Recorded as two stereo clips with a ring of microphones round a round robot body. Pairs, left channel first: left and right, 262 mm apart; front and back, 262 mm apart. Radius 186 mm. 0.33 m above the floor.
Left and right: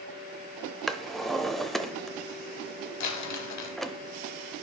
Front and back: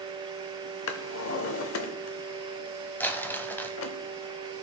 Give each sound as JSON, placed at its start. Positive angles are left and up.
{"t": 0.9, "sound": "a drawer", "azimuth_deg": 0, "distance_m": 0.7}
{"t": 3.0, "sound": "crumpling", "azimuth_deg": 85, "distance_m": 1.0}